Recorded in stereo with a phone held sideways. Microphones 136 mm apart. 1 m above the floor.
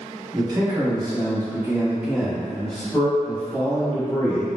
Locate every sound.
0.3 s a man speaking: 30° right (ahead or behind), 1.0 m; by 4.5 s 20° left (ahead or behind), 1.4 m